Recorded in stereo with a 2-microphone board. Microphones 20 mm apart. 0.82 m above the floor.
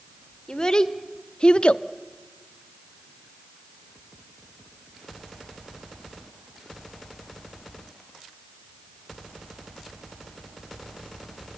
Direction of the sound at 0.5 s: 40° left (ahead or behind).